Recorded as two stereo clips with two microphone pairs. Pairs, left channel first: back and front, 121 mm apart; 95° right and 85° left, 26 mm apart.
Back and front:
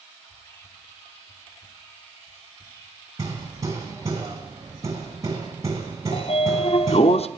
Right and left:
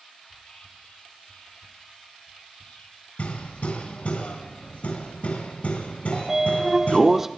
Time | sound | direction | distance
0.2 | whispering | 115° right | 2 m
3.2 | hammering | 65° right | 3.5 m
6.1 | a sliding door | 165° left | 0.7 m